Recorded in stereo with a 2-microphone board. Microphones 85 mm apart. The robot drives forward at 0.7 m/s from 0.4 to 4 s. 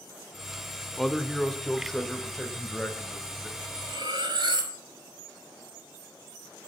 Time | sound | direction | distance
1.0 | a man speaking | 5° left (ahead or behind) | 1.1 m
3.6 | cutlery clinking | 80° right | 6 m